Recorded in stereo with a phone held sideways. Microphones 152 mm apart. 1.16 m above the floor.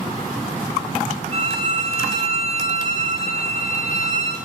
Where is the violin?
45° right (ahead or behind), 4.5 m.